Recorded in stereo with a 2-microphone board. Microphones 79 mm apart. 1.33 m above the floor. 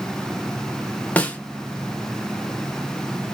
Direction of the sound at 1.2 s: 20° left (ahead or behind).